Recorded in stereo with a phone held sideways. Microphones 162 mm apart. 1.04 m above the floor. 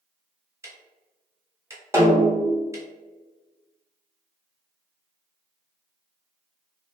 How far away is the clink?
No clink in this recording.